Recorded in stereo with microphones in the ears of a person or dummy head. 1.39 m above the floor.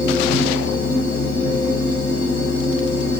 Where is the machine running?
85° left, 0.9 m.